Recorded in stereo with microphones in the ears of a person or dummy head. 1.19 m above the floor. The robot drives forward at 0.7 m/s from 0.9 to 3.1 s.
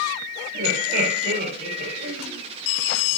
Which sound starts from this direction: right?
Laughter, at 0.5 s.